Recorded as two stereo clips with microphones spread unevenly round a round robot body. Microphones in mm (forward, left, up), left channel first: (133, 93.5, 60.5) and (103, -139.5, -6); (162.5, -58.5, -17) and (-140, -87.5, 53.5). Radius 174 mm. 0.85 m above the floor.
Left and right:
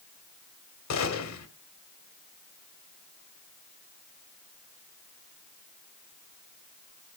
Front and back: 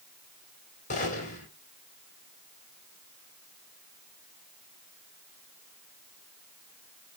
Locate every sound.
0.9 s a gunshot: 75° left, 2 m